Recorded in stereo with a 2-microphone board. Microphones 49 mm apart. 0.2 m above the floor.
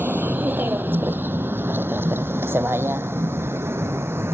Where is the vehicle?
35° right (ahead or behind); by 4.4 s 55° right (ahead or behind).